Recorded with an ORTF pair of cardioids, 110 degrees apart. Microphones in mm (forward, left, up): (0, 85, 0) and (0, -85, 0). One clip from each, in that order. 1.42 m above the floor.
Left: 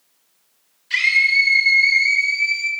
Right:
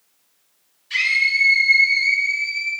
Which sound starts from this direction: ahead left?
A scream, at 0.9 s.